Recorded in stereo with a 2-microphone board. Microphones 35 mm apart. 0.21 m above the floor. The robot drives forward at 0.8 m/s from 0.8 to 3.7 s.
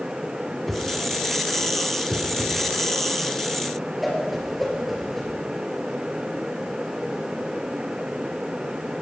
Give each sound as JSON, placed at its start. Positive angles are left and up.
{"t": 0.7, "sound": "a whoosh", "side_deg": 5, "distance_m": 1.4}